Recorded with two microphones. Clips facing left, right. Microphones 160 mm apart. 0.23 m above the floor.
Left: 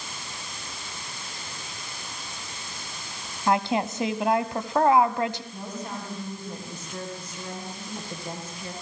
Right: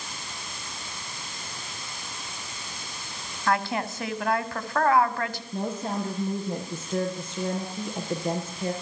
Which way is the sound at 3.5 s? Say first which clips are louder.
Left 3 dB; 20° left (ahead or behind).